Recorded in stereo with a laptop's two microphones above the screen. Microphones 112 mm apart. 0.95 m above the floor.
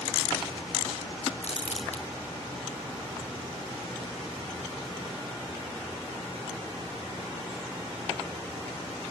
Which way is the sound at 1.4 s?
75° left (ahead or behind).